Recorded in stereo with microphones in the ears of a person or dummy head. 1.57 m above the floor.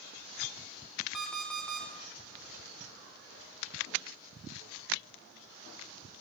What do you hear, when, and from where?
1.1 s an alarm clock: centre (ahead or behind), 0.7 m